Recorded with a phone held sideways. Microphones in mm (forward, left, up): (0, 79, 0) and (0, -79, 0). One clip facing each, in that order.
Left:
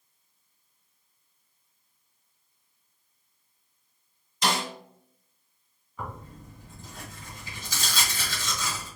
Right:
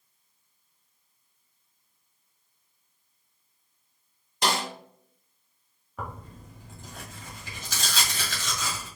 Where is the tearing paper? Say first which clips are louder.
Even; 75° right (ahead or behind), 1.7 m.